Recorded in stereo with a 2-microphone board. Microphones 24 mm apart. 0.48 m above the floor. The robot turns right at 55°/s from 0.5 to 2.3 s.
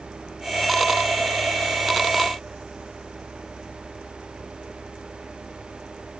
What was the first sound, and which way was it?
Only background noise.